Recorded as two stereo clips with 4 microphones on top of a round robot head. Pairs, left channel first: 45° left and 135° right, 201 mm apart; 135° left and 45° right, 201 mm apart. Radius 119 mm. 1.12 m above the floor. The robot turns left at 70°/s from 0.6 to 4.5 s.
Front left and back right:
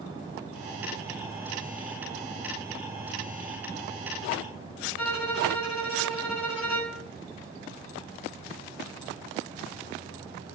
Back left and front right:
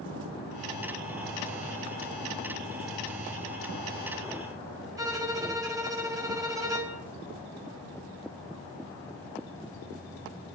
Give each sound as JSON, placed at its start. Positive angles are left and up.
{"t": 5.0, "sound": "a violin", "azimuth_deg": 25, "distance_m": 5.0}